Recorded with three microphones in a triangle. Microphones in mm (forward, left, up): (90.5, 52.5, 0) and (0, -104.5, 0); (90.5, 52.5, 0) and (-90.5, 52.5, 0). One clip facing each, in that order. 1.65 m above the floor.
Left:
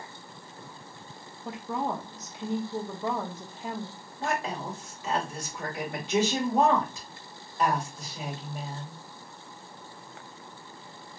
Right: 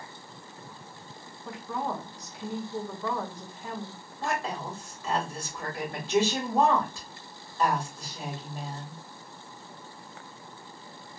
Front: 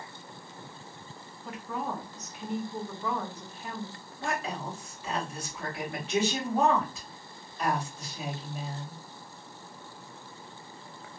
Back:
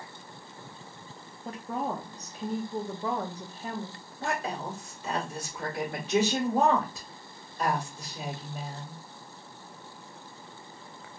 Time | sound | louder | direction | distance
1.4 | a woman speaking | left 2 dB, back 3 dB | 125° left | 0.7 m
4.2 | a woman speaking | left 1 dB, back 1 dB | 130° left | 2.0 m